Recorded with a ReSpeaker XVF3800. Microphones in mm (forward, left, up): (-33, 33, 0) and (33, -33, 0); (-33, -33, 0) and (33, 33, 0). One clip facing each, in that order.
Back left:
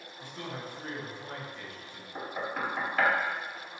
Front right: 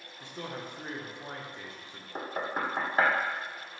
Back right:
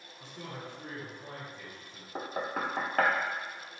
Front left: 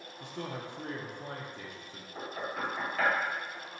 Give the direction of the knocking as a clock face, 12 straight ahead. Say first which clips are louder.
Front right 1 dB, back right 3 dB; 3 o'clock.